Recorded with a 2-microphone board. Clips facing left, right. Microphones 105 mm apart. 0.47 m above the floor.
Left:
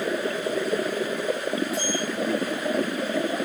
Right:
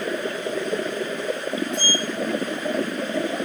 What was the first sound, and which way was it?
A sliding door, 5° left (ahead or behind).